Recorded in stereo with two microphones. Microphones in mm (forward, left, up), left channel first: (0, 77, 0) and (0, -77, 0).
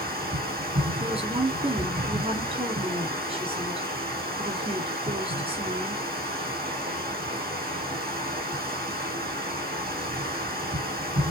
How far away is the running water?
About 4 m.